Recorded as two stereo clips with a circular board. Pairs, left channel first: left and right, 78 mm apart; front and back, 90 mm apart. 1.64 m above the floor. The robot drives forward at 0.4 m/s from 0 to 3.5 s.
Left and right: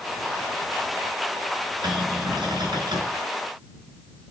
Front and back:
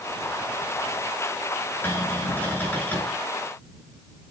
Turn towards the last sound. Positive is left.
turn(degrees=-70)